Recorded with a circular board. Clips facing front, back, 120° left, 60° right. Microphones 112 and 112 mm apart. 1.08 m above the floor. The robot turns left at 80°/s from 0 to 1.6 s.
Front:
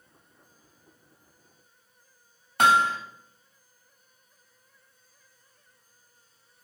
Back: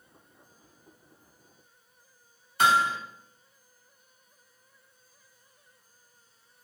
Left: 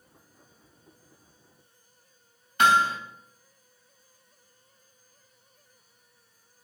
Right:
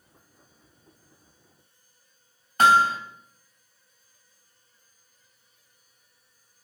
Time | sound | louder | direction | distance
2.6 | hammering | front 2 dB, right 3 dB | 15° right | 1.7 m